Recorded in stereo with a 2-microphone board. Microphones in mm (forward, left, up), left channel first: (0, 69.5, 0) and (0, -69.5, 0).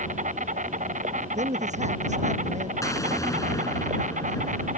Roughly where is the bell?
I don't hear a bell.